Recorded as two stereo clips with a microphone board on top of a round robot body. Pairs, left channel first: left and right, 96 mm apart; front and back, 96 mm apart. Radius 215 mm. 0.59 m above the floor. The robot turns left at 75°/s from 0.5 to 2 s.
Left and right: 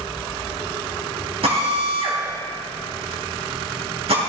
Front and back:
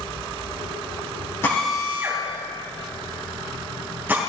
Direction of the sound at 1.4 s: 65° right.